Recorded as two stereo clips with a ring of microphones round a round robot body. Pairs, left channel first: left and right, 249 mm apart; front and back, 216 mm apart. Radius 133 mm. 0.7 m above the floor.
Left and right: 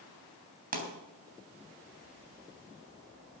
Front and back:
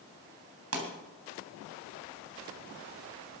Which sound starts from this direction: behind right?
A pop, at 0.7 s.